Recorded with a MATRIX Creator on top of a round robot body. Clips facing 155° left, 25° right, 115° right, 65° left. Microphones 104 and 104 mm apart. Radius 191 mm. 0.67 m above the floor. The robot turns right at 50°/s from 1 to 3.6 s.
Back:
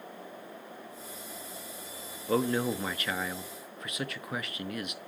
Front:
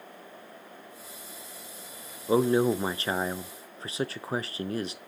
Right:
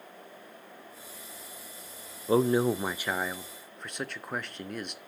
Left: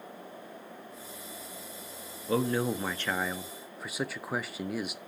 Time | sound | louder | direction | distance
2.3 | a man speaking | front 5 dB, right 4 dB | 80° right | 0.6 m